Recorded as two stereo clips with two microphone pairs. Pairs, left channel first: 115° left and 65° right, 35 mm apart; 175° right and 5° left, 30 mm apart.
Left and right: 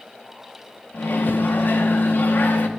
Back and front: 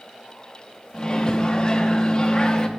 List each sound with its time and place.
0.9 s a microwave: 125° left, 1.0 m